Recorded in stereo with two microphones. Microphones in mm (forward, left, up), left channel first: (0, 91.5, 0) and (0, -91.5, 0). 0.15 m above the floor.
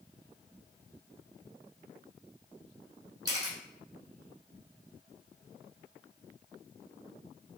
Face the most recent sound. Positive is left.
turn(degrees=-20)  # may be behind; listen again after turning